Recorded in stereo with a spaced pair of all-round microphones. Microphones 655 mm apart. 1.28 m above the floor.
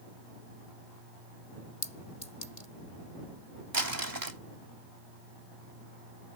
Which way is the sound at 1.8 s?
80° left.